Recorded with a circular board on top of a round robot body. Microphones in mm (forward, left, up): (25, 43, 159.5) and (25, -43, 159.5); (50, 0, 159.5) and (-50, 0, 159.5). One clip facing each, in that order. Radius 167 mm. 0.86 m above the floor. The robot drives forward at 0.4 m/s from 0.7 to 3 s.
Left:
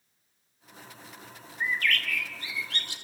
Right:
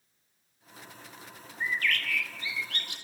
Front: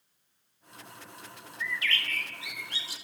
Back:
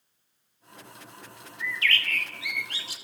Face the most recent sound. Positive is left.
turn(degrees=150)